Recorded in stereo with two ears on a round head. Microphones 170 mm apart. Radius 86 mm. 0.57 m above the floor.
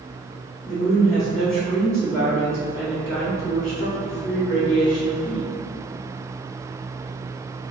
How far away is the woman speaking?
About 0.8 m.